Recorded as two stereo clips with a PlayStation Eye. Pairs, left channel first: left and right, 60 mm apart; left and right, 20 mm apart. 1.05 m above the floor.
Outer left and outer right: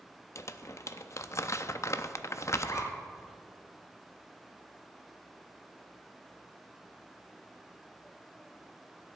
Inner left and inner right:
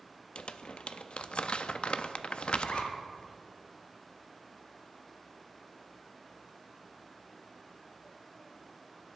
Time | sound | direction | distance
0.3 | crumpling | 55° left (ahead or behind) | 0.6 m
2.6 | a zipper | 60° left (ahead or behind) | 2.5 m